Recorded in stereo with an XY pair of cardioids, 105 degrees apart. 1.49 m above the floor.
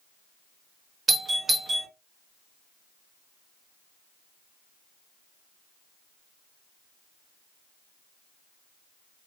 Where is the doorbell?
35° right, 1.1 m.